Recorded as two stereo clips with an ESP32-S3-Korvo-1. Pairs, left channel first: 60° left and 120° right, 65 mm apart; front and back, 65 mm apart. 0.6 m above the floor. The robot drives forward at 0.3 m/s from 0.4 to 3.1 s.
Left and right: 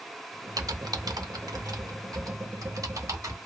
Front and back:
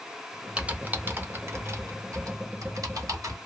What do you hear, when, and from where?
0.6 s typing on a keyboard: 105° right, 0.5 m; by 3.4 s 150° right, 1.0 m